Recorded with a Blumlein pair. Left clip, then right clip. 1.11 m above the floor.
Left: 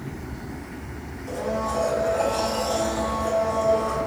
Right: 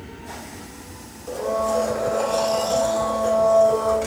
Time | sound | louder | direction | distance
1.3 | a blender | right 4 dB | 20° right | 1.8 m